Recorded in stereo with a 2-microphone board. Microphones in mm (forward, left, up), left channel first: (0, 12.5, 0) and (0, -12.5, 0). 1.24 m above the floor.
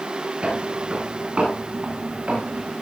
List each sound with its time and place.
0.4 s footsteps: 45° right (ahead or behind), 8.5 m; by 2.7 s 55° right (ahead or behind), 8.5 m